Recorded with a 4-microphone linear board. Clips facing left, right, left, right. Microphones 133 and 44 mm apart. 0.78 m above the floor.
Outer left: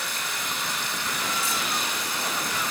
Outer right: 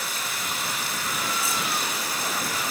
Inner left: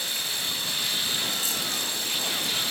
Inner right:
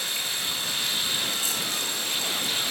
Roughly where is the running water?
Centre.